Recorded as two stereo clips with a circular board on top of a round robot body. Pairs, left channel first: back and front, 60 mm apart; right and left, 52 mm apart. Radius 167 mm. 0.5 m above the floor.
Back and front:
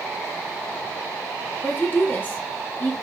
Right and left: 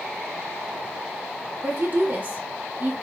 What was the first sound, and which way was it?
A woman speaking, 125° left.